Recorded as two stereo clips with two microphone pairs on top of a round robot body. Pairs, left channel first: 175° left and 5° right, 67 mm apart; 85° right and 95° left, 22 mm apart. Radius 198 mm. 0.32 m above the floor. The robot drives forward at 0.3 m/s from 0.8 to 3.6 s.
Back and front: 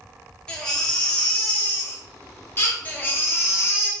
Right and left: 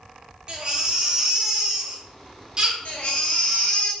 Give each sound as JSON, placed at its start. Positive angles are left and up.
{"t": 0.5, "sound": "a baby crying", "azimuth_deg": 105, "distance_m": 1.2}
{"t": 2.9, "sound": "a baby crying", "azimuth_deg": -120, "distance_m": 0.7}